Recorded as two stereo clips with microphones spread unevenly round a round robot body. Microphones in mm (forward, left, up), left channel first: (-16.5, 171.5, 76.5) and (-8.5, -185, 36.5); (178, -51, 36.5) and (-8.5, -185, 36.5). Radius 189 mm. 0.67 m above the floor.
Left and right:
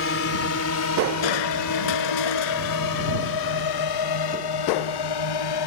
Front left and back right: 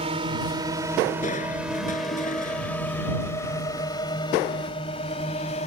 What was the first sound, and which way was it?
A drone, 145° left.